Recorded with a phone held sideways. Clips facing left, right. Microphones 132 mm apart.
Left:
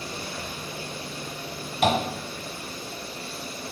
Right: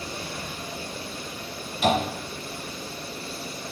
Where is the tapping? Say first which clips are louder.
Even; 60° left (ahead or behind), 1.5 m.